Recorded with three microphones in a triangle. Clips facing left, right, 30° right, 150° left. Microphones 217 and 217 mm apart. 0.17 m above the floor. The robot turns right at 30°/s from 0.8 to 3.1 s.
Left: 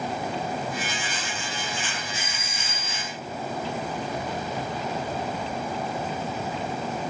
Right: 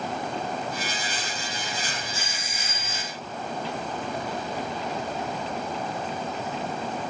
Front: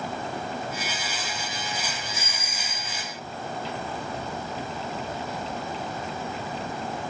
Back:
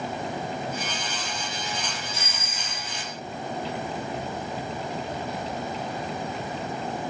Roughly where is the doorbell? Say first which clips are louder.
Even, even; ahead left.